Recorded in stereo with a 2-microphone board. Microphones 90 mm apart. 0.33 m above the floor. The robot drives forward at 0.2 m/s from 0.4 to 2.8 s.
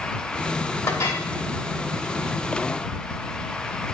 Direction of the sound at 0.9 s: 35° left (ahead or behind).